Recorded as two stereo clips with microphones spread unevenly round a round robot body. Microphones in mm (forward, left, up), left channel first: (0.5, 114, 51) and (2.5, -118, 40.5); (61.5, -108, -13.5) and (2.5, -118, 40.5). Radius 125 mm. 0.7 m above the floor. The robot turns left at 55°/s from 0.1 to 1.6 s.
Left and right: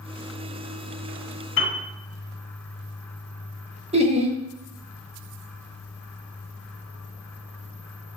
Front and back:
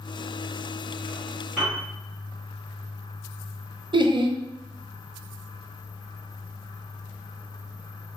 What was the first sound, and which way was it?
A piano, 65° left.